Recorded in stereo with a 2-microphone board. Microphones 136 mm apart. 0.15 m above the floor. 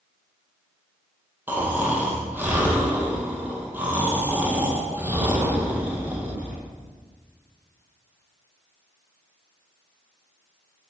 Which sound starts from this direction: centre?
Snoring, at 1.5 s.